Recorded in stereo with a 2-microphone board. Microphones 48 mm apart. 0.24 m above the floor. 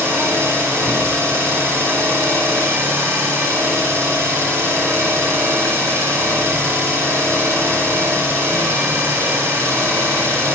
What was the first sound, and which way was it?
An engine running, 55° right (ahead or behind).